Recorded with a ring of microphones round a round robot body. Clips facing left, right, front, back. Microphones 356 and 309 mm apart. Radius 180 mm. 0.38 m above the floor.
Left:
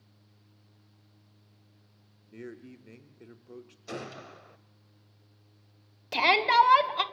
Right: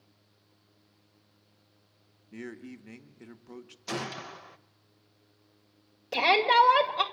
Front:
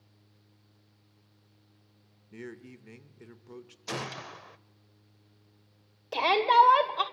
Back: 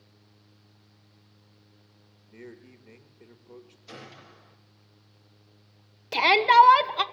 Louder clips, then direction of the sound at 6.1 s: Right 2 dB, back 3 dB; 150° left.